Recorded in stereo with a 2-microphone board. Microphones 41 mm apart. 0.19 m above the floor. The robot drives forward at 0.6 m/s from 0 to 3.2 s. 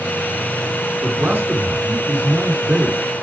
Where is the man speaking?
55° right (ahead or behind), 3 m.